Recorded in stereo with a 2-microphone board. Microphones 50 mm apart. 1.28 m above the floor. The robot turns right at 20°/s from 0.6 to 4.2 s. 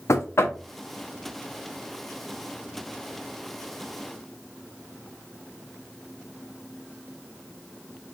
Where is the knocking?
70° left (ahead or behind), 0.6 m.